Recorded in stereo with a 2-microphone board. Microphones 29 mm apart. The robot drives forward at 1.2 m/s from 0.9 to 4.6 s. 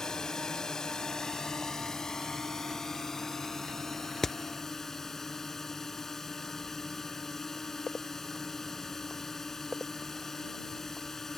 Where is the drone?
20° left (ahead or behind); by 11.4 s 10° left (ahead or behind).